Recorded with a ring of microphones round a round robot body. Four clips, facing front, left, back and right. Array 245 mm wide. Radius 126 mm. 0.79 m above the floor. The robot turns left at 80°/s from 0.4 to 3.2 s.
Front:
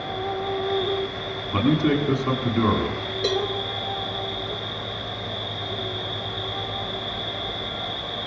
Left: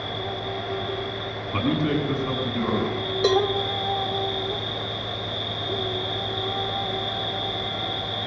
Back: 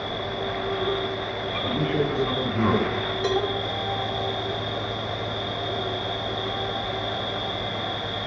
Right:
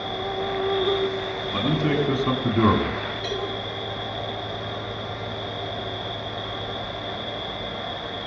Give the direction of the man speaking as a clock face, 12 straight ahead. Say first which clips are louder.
Even, front 5 dB; 12 o'clock.